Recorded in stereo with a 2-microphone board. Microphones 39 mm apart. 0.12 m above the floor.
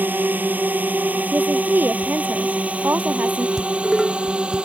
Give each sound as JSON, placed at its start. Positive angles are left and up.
{"t": 0.0, "sound": "a drone", "side_deg": -55}
{"t": 1.3, "sound": "a woman speaking", "side_deg": -55}
{"t": 3.6, "sound": "dishes clattering", "side_deg": -10}